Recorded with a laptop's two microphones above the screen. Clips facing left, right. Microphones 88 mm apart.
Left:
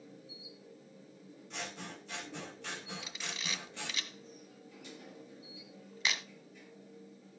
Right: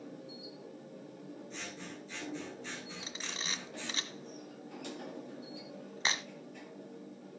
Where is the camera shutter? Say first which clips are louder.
Right 1 dB; 35° right (ahead or behind), 1.6 m.